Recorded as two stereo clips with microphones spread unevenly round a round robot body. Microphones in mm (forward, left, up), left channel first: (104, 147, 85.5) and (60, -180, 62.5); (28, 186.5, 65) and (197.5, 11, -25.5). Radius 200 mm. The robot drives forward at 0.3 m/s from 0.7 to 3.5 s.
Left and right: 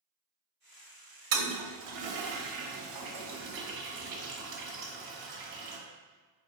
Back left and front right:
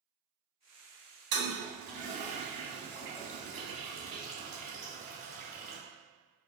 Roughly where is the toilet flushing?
Right.